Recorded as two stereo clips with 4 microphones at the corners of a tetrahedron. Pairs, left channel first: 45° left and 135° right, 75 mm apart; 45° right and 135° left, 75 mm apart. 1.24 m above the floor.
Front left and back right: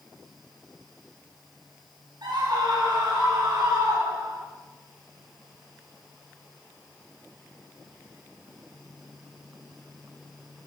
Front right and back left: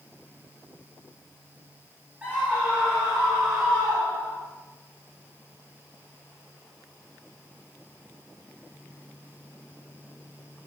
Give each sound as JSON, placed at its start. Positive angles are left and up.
{"t": 2.2, "sound": "a scream", "azimuth_deg": -155, "distance_m": 4.5}